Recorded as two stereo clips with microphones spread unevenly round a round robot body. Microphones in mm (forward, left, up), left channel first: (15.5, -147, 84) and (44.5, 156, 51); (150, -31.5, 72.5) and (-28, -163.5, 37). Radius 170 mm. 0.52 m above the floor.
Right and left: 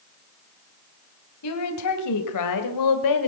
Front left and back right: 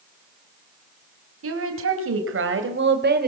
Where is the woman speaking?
135° right, 3.5 m; by 3.3 s 105° right, 1.8 m.